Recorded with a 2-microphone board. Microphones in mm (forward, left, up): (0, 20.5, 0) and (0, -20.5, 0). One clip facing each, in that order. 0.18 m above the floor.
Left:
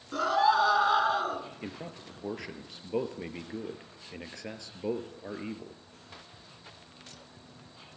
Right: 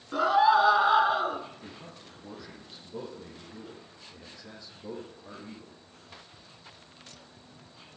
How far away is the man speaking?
About 3.5 m.